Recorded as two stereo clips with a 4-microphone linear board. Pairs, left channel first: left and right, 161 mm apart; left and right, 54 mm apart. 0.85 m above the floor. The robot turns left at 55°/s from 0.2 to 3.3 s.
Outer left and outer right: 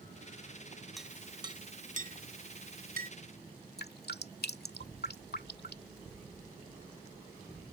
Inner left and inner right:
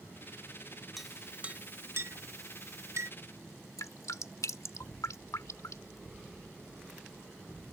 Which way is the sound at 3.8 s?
85° left.